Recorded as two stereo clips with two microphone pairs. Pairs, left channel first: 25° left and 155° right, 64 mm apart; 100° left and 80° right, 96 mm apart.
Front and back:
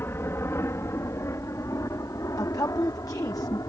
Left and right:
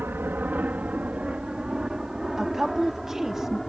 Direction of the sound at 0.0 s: 15° right.